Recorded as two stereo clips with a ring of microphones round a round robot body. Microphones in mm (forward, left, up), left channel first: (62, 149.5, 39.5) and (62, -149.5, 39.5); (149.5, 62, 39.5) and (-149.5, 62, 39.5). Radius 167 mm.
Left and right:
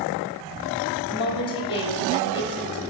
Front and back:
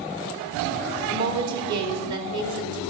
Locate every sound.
1.1 s a woman speaking: 165° left, 2 m